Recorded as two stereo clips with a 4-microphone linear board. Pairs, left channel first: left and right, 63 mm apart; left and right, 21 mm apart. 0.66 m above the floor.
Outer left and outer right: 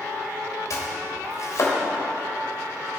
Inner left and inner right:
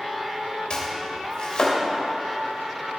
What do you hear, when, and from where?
0.7 s chopping: 60° left (ahead or behind), 2.5 m